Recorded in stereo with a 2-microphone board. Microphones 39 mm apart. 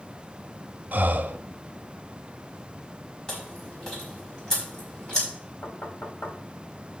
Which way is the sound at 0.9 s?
50° right (ahead or behind).